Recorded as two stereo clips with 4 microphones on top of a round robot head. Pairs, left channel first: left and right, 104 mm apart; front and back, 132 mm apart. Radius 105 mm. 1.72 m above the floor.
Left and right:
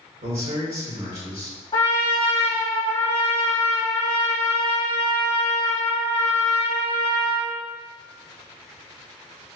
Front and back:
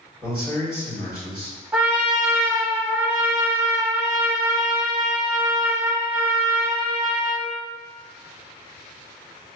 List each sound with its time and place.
0.2 s a man speaking: 95° right, 1.8 m
1.7 s a trumpet: 105° left, 1.0 m